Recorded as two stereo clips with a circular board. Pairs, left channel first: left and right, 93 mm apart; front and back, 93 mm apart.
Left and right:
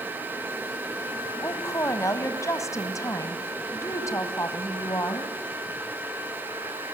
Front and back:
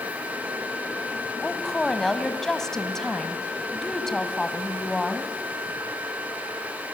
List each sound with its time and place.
1.4 s a woman speaking: 80° left, 1.7 m